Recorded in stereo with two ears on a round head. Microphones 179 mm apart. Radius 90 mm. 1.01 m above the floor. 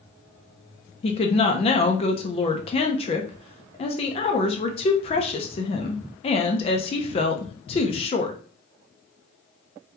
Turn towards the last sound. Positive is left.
turn(degrees=30)  # may be behind; listen again after turning